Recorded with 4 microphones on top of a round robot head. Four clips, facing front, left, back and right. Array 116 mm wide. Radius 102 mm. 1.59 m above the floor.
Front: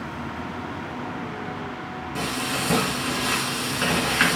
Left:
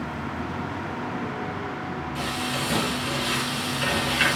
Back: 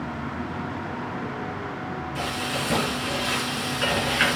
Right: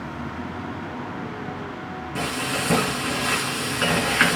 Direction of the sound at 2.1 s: 55° right.